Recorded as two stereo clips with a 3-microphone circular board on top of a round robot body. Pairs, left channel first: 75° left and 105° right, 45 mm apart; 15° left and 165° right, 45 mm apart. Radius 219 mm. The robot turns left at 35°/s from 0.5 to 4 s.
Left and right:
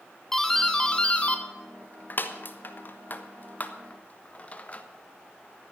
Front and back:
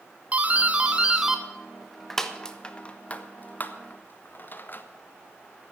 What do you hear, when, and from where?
0.3 s a doorbell: 150° left, 1.6 m; by 4.8 s 30° left, 1.6 m